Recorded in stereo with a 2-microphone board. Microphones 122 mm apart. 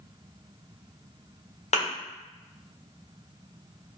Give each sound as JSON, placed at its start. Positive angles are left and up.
{"t": 1.7, "sound": "a thud", "side_deg": 65, "distance_m": 1.2}